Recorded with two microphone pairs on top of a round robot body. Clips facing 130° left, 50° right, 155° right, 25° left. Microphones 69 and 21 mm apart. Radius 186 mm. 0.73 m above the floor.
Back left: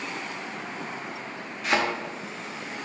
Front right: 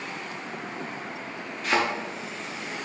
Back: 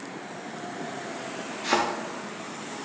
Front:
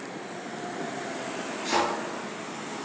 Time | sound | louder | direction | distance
1.6 | a thud | even, back 2 dB | 140° right | 0.5 m